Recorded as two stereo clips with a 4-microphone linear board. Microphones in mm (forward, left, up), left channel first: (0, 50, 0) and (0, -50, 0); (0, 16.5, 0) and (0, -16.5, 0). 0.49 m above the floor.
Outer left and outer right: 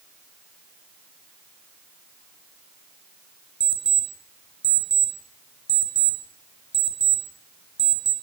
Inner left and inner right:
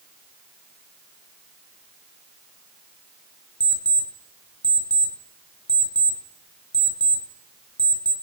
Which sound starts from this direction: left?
An alarm clock, at 3.6 s.